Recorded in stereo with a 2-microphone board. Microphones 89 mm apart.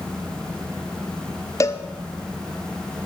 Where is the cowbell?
35° left (ahead or behind), 0.9 m.